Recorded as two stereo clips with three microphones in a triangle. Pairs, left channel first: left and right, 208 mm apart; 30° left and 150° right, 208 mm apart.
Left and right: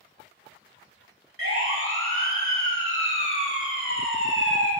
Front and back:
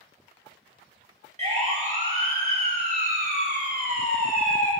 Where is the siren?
90° right, 3.5 m; by 4.7 s 115° right, 5 m.